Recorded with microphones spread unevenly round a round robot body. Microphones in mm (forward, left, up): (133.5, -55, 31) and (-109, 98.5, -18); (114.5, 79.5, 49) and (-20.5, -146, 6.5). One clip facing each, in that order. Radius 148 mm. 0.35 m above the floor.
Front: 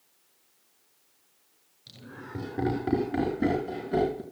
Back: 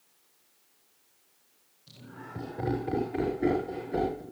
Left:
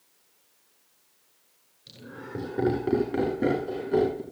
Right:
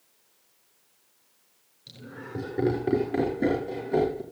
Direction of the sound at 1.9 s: 30° right.